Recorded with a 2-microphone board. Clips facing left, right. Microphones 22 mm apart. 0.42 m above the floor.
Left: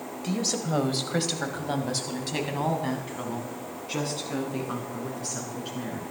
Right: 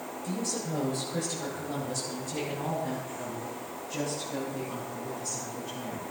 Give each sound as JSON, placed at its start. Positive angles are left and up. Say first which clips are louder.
{"t": 0.2, "sound": "a woman speaking", "louder": "left 5 dB", "side_deg": 50, "distance_m": 1.4}